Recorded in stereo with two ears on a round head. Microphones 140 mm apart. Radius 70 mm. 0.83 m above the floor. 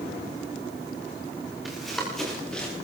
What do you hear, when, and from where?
1.6 s running footsteps: centre (ahead or behind), 8.5 m; by 2.7 s 5° left (ahead or behind), 9 m